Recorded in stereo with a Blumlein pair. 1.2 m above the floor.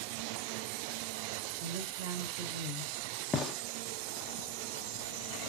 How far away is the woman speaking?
About 1.4 m.